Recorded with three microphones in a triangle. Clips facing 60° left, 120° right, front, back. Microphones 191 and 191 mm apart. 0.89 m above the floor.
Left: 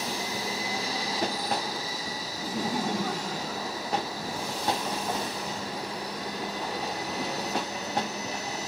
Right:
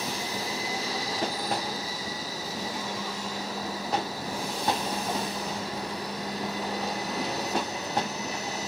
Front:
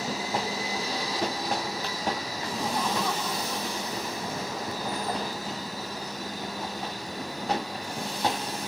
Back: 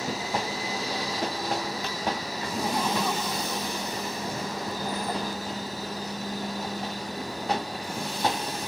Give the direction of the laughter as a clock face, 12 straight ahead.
9 o'clock.